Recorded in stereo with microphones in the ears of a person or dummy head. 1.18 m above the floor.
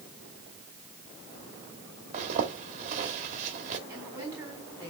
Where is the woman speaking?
10° right (ahead or behind), 4 m.